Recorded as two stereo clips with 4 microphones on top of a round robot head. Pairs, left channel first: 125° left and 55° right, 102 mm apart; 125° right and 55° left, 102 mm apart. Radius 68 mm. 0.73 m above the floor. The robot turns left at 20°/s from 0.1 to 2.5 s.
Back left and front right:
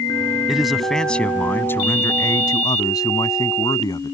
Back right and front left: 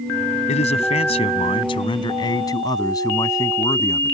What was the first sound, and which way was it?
A man speaking, 140° right.